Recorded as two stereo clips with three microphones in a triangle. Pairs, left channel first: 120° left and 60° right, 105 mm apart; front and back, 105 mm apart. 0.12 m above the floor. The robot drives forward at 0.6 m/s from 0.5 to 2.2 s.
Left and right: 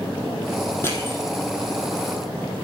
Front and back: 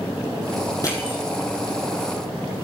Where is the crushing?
55° left, 3.5 m; by 1.2 s 60° left, 3.5 m.